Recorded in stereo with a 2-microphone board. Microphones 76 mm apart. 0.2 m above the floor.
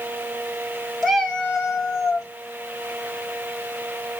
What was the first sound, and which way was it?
A cat meowing, 5° left (ahead or behind).